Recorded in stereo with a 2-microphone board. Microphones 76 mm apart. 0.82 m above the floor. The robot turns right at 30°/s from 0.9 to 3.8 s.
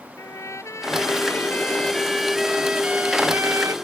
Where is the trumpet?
140° left; by 3.7 s 135° right.